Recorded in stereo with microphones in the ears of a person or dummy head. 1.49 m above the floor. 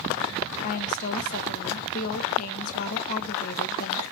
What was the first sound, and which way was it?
A woman speaking, 45° left (ahead or behind).